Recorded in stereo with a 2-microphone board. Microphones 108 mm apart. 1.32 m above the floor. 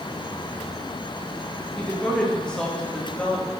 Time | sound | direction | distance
1.8 | a woman speaking | 10° left (ahead or behind) | 1.5 m